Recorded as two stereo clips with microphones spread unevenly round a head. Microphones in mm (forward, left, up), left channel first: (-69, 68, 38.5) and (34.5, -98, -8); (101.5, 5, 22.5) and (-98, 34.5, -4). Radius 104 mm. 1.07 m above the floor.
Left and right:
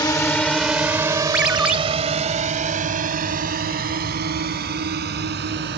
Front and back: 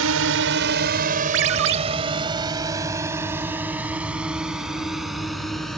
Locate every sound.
0.0 s a drone: 160° right; by 5.8 s 95° right
1.3 s a ringtone: 145° right